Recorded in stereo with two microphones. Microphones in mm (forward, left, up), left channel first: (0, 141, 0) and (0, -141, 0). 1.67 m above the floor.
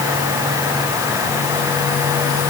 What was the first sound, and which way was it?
Only background noise.